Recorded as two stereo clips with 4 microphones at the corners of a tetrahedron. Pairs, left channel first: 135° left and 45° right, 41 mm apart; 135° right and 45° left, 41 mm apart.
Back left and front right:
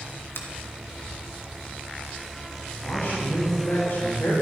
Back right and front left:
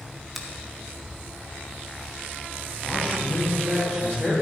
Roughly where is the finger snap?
Behind left.